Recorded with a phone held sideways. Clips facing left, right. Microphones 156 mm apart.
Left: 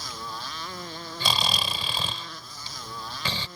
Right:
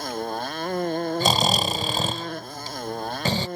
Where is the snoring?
45° right (ahead or behind).